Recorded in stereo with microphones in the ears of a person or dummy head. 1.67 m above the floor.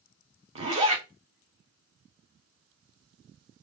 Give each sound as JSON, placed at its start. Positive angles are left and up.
{"t": 0.6, "sound": "a zipper", "side_deg": -35, "distance_m": 1.3}